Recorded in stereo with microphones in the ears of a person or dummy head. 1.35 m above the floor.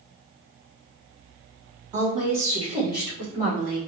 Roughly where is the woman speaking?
Right.